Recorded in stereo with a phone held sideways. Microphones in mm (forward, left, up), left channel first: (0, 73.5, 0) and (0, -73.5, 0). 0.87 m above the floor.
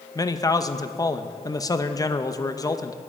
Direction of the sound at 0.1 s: 25° left (ahead or behind).